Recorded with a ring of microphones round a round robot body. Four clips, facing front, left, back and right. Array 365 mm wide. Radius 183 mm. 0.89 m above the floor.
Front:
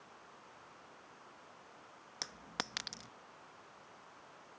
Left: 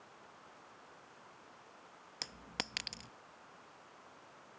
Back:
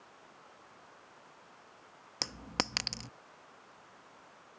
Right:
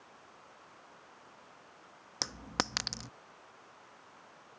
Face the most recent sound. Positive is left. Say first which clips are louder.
# right 10 dB, back 7 dB
turn(degrees=-135)